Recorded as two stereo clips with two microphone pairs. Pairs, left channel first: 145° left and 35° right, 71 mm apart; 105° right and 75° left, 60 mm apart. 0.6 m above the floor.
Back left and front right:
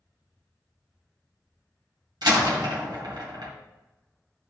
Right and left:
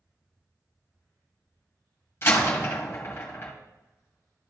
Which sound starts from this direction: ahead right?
A door slam, at 2.2 s.